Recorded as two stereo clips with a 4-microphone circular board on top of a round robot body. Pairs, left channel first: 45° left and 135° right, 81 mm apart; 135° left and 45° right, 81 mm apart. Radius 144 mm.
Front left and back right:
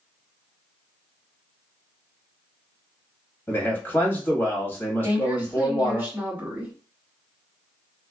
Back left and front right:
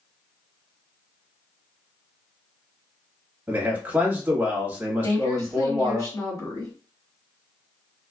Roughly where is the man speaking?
Ahead.